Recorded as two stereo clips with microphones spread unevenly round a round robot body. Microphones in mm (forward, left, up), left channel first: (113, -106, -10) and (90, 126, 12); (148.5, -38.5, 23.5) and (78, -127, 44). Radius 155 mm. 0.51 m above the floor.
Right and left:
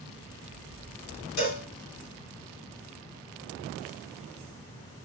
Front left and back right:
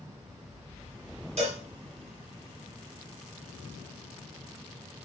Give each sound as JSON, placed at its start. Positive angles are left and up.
{"t": 1.4, "sound": "a cowbell", "azimuth_deg": -105, "distance_m": 2.5}